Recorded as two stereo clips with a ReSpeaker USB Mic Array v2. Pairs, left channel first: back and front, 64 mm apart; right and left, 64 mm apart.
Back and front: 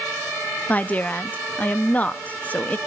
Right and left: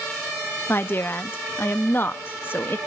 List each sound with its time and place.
0.7 s a woman speaking: 125° right, 1.0 m